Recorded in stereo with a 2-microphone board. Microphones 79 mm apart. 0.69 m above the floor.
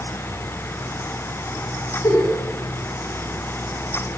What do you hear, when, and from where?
2.0 s a giggle: 40° left (ahead or behind), 5.5 m